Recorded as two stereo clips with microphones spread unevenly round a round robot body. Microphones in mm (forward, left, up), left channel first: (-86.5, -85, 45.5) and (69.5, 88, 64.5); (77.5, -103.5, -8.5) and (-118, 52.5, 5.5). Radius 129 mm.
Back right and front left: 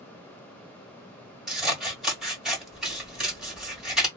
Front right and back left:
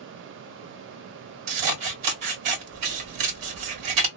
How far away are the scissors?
About 1.6 m.